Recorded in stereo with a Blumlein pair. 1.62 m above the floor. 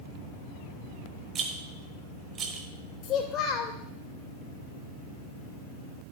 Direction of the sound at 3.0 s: 30° left.